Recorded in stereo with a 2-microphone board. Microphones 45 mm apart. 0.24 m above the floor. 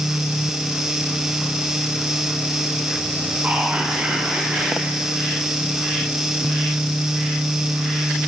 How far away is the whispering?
About 1.9 m.